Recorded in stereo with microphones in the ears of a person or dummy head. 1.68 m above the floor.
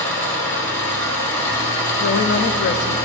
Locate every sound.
0.0 s an engine running: 15° left (ahead or behind), 1.9 m
2.0 s a woman speaking: 45° left (ahead or behind), 0.6 m